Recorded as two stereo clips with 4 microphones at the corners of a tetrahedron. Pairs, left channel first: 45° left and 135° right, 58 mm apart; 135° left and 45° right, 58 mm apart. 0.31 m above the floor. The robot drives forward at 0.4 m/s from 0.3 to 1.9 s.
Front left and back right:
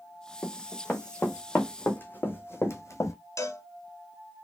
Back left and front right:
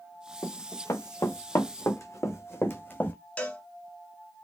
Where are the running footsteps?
110° left, 1.7 m; by 3.1 s 75° left, 1.2 m.